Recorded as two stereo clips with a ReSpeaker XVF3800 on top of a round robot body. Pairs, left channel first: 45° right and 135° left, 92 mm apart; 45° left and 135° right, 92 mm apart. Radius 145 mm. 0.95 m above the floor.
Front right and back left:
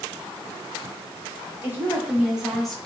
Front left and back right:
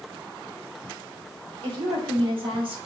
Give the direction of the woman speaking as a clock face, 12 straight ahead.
5 o'clock.